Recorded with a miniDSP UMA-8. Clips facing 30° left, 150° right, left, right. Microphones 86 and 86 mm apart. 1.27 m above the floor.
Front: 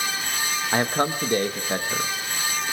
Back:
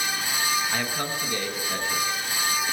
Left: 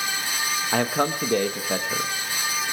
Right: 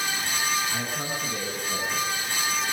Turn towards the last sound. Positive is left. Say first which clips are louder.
# front 6 dB, left 8 dB
turn(degrees=80)